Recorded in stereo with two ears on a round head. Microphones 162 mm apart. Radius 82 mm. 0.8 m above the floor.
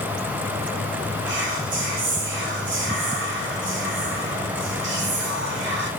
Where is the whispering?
65° right (ahead or behind), 3 m.